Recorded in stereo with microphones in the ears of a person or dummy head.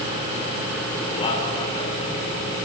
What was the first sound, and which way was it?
A man speaking, 30° left (ahead or behind).